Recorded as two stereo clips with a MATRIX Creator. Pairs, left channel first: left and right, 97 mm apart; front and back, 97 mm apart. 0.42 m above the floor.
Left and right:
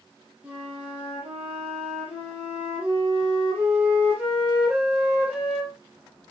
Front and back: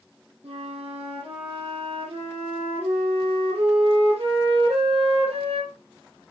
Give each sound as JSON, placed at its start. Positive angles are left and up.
{"t": 0.4, "sound": "a flute", "azimuth_deg": -170, "distance_m": 7.0}